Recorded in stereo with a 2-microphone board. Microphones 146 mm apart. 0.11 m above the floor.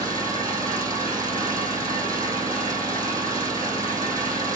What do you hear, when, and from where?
0.0 s an engine running: 25° right (ahead or behind), 3.5 m